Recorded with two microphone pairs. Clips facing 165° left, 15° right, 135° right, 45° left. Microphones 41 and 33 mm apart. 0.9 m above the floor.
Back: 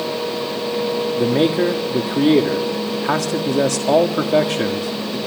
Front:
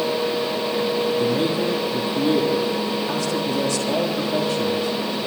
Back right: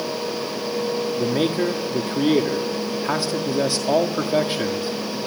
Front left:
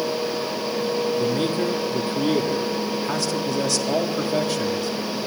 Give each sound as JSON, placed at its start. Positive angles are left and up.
{"t": 1.2, "sound": "a man speaking", "azimuth_deg": 160, "distance_m": 1.4}